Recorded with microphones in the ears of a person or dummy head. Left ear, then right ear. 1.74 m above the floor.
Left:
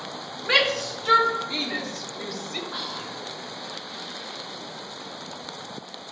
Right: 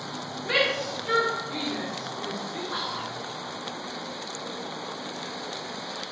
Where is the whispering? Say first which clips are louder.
Right 1 dB; 10° right (ahead or behind), 0.5 m.